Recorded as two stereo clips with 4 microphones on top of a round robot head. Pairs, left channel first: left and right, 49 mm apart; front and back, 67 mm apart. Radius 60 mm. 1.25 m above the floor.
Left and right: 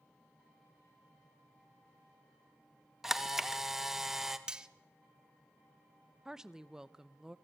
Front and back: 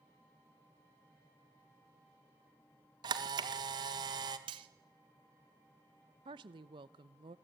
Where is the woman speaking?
165° right, 0.8 m.